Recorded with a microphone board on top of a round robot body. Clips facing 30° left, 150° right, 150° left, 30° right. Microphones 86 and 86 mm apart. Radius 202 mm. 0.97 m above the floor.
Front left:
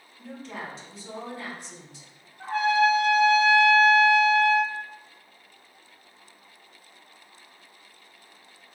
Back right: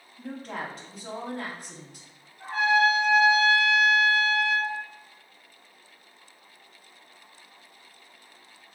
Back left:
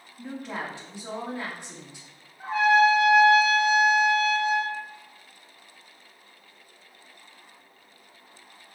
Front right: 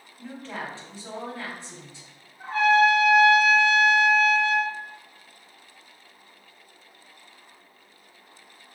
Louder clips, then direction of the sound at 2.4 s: Front left 1 dB, even; 75° left.